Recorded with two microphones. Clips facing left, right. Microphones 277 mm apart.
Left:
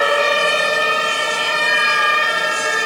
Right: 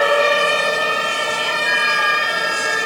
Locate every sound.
1.6 s a flute: 60° right (ahead or behind), 9.5 m